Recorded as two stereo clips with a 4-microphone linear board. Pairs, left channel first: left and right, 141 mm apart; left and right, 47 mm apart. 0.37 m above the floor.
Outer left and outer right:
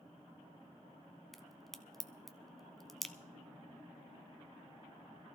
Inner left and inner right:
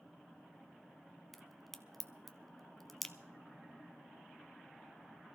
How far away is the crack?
About 0.7 m.